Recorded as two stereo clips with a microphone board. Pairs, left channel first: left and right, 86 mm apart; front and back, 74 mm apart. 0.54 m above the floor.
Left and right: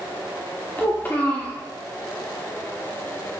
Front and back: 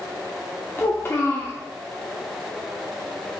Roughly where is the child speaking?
Ahead left.